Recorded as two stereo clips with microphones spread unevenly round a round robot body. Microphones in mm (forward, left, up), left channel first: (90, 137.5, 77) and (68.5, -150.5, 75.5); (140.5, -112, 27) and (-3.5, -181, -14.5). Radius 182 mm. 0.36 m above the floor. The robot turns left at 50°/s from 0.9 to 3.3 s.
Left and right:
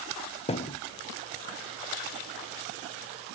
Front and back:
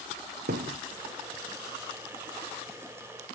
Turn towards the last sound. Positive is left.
turn(degrees=40)